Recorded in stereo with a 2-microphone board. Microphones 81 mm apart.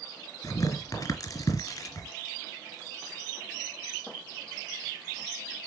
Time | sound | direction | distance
0.4 | tearing paper | 45° left (ahead or behind) | 1.5 m